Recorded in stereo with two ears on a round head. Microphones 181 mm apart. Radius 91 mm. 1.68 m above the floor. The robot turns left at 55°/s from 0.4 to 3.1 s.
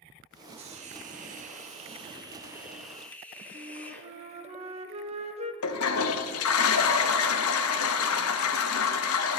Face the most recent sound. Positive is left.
turn(degrees=80)